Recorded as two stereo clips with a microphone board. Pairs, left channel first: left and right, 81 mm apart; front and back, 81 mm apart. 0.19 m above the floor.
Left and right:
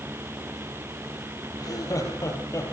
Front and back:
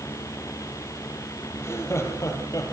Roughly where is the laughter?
Ahead left.